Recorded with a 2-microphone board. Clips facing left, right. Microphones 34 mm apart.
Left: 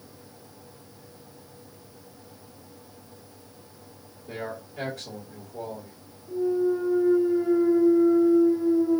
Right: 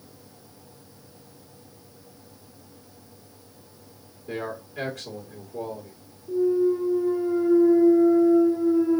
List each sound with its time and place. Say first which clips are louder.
4.3 s a man speaking: right 3 dB; 85° right, 2.0 m
6.3 s a clunk: right 3 dB; 70° right (ahead or behind), 1.9 m